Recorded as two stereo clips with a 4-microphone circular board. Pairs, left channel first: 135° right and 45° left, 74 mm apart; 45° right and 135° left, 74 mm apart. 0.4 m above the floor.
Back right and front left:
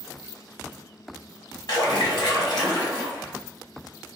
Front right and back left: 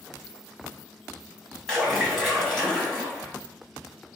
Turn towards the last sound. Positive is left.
turn(degrees=-135)